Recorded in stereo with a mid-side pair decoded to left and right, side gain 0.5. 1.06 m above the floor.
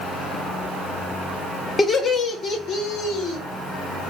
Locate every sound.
1.8 s laughter: 35° left, 1.1 m; by 3.4 s 80° left, 1.5 m